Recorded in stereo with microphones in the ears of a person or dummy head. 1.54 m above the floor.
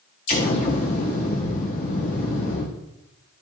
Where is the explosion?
25° left (ahead or behind), 1.1 m.